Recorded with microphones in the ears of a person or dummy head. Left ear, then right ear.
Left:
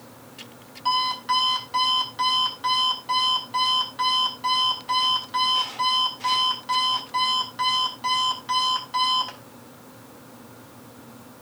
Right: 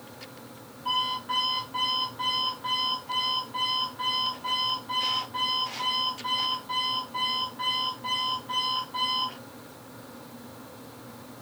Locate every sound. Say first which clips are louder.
0.8 s an alarm clock: left 5 dB; 70° left (ahead or behind), 3 m